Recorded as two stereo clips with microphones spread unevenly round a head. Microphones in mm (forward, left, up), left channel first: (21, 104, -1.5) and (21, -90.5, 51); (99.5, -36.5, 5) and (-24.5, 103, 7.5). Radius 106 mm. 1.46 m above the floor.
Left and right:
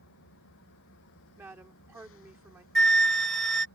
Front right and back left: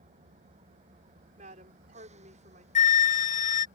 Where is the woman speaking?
170° right.